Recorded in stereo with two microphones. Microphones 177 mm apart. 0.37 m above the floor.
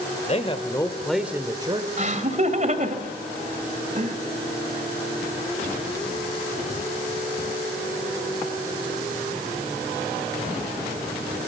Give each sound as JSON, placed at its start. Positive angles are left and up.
{"t": 0.3, "sound": "a man speaking", "side_deg": 40, "distance_m": 1.9}
{"t": 2.0, "sound": "laughter", "side_deg": -45, "distance_m": 2.0}